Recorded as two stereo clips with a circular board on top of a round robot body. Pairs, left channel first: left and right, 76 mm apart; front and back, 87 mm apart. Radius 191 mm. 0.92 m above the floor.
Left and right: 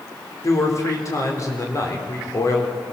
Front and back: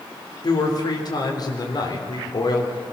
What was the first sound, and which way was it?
A man speaking, 40° left.